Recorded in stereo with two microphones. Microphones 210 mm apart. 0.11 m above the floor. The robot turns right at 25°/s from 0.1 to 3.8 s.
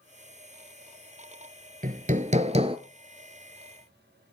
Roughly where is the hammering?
Right.